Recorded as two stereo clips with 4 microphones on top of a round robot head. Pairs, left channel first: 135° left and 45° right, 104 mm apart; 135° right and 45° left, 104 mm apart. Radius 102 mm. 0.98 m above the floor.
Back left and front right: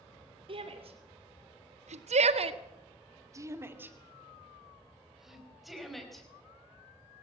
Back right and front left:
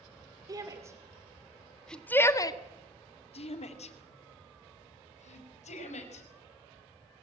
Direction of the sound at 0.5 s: 10° right.